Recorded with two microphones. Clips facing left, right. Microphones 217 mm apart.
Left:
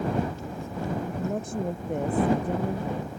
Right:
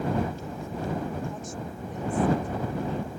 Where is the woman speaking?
60° left (ahead or behind); by 3.1 s 55° left (ahead or behind).